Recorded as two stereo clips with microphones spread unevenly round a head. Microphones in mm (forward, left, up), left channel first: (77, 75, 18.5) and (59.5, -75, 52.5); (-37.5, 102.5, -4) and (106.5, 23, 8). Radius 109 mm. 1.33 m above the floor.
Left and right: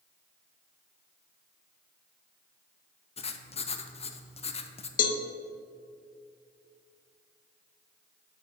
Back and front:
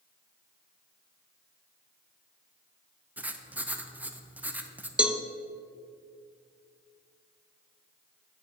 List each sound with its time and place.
3.2 s writing: 55° left, 0.6 m
5.0 s a cowbell: 50° left, 0.6 m